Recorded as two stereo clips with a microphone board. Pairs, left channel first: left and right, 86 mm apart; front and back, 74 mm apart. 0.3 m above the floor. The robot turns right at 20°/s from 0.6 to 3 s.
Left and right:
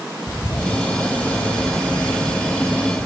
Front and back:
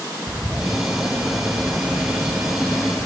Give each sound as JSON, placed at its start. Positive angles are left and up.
{"t": 0.3, "sound": "a bird", "azimuth_deg": 90, "distance_m": 0.9}